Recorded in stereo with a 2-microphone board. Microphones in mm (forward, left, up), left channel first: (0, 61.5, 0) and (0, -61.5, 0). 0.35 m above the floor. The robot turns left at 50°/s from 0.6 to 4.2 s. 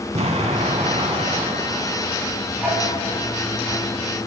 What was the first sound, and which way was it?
An explosion, 65° right.